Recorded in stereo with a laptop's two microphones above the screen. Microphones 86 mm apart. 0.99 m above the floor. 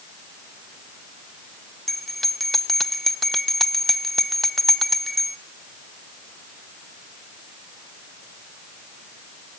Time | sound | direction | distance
1.9 | a bell | centre (ahead or behind) | 0.7 m